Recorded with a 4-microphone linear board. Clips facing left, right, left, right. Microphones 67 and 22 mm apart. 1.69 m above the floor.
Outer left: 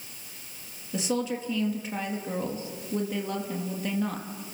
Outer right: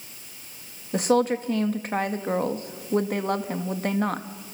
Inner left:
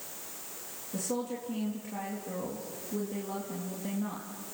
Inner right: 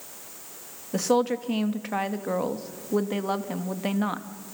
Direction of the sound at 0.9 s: 55° right (ahead or behind).